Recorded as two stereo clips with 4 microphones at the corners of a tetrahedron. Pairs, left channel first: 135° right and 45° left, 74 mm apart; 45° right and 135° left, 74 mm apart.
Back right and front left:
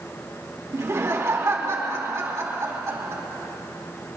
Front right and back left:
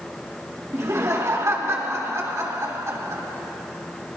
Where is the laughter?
90° left, 2.5 m.